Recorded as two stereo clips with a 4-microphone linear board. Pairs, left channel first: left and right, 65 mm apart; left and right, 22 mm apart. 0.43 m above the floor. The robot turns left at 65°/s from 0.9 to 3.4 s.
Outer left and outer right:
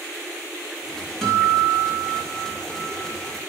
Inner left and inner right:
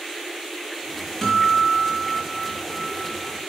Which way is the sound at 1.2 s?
170° left.